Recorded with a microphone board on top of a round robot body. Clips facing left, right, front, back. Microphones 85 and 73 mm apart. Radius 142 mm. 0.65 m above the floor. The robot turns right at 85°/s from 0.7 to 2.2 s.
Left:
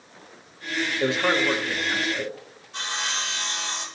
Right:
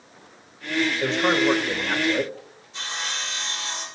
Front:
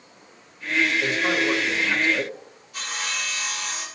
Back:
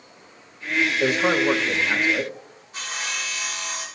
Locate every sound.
1.0 s a man speaking: 160° left, 1.4 m; by 2.3 s 100° right, 1.4 m
2.7 s sawing: 125° left, 3 m